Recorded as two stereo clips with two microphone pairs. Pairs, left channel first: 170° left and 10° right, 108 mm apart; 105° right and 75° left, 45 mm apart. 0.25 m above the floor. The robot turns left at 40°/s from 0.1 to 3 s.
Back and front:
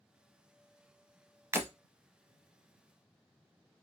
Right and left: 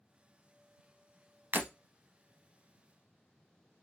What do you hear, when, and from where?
1.5 s breaking glass: 50° left, 0.8 m; by 1.7 s 45° left, 0.8 m